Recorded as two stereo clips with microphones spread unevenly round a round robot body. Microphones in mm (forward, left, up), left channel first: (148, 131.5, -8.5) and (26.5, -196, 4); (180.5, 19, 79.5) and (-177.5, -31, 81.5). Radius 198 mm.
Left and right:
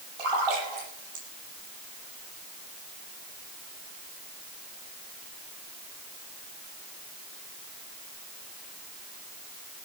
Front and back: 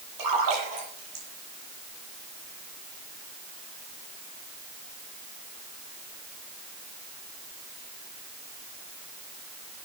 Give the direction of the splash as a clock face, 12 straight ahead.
4 o'clock.